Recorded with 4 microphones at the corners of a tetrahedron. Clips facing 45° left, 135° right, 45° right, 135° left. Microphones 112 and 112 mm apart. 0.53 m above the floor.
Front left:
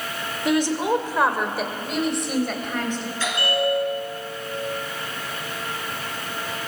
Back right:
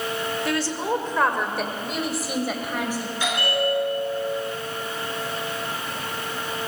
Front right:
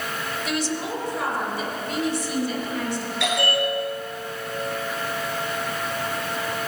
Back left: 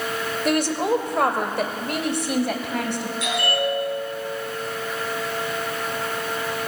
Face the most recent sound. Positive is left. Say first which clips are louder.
# front left 1 dB, front right 1 dB
turn(degrees=-60)